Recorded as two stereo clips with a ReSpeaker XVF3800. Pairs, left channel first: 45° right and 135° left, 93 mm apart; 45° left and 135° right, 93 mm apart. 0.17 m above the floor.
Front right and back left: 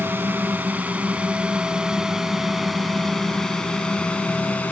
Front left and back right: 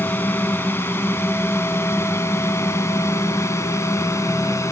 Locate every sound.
0.0 s a drone: 90° left; by 4.7 s 15° left